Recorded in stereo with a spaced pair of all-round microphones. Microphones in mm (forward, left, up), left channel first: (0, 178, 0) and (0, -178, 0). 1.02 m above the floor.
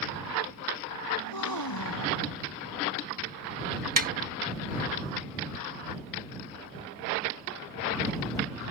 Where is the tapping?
65° right (ahead or behind).